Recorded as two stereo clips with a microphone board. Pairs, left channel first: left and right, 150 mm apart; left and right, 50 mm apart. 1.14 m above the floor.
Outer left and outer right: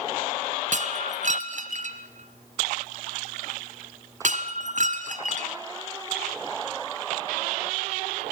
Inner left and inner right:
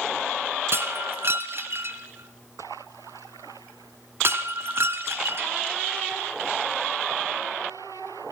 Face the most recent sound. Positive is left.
turn(degrees=-55)  # may be behind; listen again after turning